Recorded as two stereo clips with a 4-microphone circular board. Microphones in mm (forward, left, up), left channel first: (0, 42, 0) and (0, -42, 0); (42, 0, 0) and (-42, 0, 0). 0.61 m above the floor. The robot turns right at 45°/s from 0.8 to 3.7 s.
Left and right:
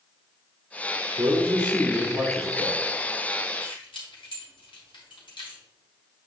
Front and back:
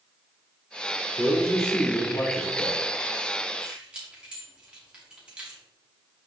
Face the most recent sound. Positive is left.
turn(degrees=105)